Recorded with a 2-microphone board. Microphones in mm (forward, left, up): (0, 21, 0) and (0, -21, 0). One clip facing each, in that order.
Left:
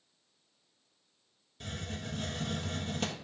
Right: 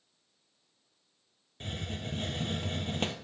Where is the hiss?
35° right (ahead or behind), 1.0 m.